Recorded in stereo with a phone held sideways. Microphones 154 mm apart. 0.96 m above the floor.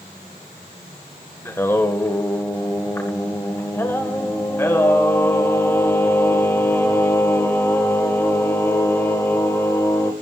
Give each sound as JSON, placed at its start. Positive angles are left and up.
{"t": 1.4, "sound": "singing", "side_deg": 15, "distance_m": 2.0}